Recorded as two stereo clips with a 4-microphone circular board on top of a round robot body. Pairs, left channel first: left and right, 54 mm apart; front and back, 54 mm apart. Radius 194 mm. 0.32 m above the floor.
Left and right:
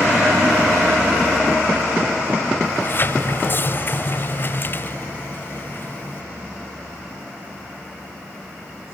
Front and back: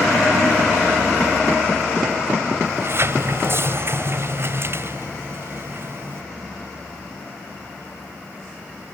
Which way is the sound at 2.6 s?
140° left.